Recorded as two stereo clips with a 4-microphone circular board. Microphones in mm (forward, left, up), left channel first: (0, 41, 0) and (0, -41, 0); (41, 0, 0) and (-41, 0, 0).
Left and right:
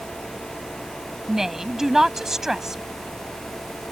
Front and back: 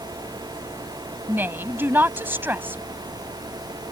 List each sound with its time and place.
1.3 s a woman speaking: 170° right